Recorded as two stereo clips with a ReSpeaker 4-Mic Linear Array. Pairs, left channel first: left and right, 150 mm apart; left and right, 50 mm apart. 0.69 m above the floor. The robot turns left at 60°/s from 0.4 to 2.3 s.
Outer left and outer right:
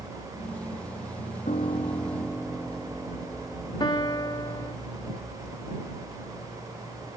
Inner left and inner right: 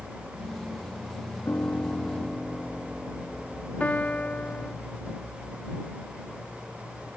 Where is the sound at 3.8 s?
30° left (ahead or behind).